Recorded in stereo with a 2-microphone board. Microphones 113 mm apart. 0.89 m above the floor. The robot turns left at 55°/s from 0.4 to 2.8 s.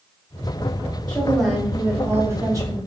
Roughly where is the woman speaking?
Ahead.